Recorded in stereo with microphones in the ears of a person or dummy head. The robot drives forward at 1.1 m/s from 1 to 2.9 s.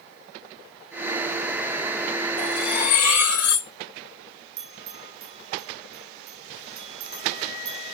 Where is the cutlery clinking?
5° right (ahead or behind), 3.5 m.